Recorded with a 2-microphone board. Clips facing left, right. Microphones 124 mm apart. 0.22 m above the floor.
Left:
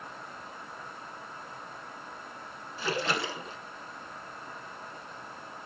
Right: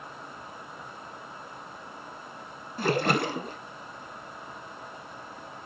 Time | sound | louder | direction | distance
2.8 | a splash | right 6 dB | 55° right (ahead or behind) | 1.1 m